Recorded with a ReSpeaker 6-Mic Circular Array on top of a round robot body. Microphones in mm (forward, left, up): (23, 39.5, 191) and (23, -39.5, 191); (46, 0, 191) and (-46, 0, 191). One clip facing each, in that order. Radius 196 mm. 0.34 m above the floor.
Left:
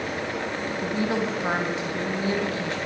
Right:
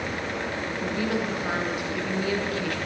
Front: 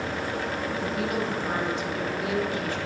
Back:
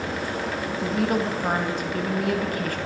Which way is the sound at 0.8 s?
150° left.